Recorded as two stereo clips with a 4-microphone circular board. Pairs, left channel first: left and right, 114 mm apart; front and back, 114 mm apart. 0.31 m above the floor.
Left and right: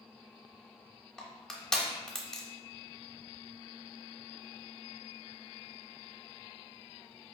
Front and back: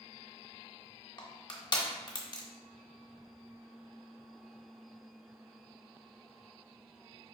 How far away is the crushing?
About 0.9 m.